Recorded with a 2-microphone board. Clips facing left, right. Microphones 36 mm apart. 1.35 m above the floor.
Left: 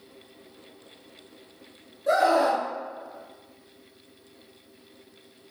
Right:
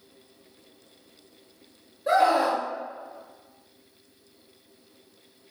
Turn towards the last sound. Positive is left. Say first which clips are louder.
# even
turn(degrees=-30)  # may be behind; listen again after turning